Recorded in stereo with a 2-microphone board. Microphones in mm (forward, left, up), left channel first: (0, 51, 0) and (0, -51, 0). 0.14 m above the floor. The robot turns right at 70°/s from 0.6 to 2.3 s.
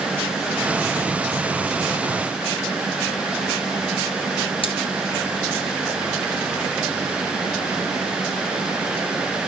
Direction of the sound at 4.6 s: 60° left (ahead or behind).